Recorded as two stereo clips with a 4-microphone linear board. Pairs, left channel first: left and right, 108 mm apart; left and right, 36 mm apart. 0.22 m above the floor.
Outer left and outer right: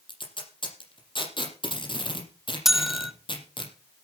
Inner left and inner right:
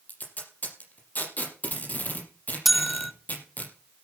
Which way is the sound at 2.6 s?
5° right (ahead or behind).